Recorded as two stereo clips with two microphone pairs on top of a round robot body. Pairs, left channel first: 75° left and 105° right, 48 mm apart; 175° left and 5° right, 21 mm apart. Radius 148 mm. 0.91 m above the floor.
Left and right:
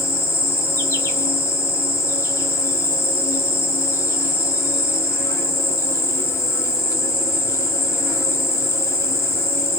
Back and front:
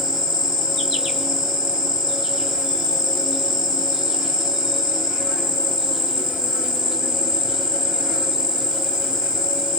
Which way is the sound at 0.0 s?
65° left.